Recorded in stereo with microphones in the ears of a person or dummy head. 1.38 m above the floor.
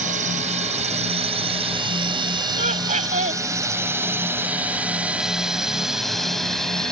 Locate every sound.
0.0 s a drone: 40° right (ahead or behind); by 6.9 s 5° left (ahead or behind)
2.6 s laughter: 40° right (ahead or behind)